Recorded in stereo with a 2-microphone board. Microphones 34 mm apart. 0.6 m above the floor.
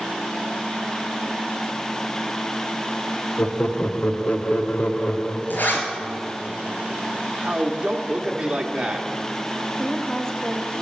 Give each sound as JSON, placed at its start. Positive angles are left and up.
{"t": 3.4, "sound": "laughter", "side_deg": 40, "distance_m": 0.8}
{"t": 5.5, "sound": "a zipper", "side_deg": 65, "distance_m": 2.5}
{"t": 7.4, "sound": "a man speaking", "side_deg": -25, "distance_m": 1.0}
{"t": 9.8, "sound": "a woman speaking", "side_deg": 15, "distance_m": 1.1}